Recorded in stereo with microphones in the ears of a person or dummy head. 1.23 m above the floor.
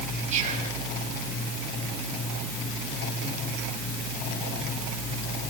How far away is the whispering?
About 7 m.